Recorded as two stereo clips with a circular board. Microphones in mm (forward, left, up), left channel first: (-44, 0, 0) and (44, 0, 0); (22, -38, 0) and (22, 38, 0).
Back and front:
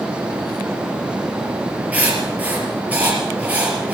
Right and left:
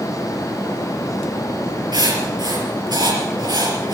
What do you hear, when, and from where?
1.9 s writing: 75° left, 4.5 m